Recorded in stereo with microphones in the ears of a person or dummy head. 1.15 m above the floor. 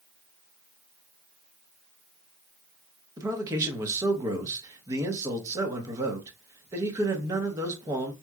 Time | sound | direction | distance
3.2 | a man speaking | 15° right (ahead or behind) | 0.9 m